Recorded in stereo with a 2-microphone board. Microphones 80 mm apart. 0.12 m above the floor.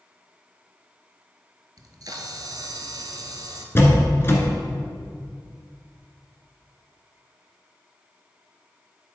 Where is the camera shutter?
55° right (ahead or behind), 0.9 m.